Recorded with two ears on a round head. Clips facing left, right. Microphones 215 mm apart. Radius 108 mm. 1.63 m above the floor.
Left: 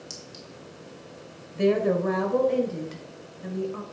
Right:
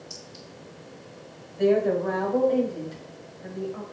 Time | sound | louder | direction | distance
0.1 | a clink | left 1 dB | 50° left (ahead or behind) | 2.5 m
1.6 | a woman speaking | right 1 dB | 45° left (ahead or behind) | 2 m